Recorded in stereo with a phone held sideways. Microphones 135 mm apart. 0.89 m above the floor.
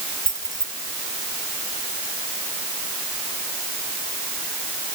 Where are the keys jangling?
85° left.